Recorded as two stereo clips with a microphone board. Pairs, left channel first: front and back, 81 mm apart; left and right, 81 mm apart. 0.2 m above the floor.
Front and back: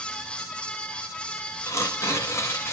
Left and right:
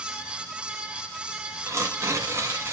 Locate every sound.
1.7 s tearing paper: 45° right, 1.7 m